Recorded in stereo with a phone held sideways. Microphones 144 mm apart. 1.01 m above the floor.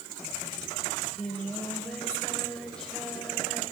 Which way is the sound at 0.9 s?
5° left (ahead or behind).